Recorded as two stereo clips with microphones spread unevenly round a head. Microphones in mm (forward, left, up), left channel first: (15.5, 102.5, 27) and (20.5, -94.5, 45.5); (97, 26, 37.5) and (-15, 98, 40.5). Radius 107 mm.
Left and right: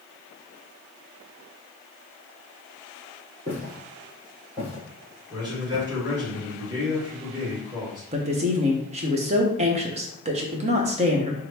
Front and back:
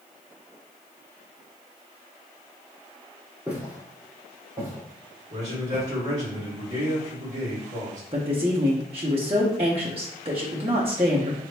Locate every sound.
3.5 s footsteps: 130° right, 1.7 m; by 5.8 s 175° right, 2 m
5.3 s a man speaking: 160° right, 1.8 m
8.1 s a woman speaking: 150° right, 0.6 m